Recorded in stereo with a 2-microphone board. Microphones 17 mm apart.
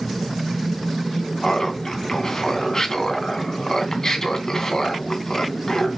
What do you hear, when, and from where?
1.4 s laughter: 30° left (ahead or behind), 2.5 m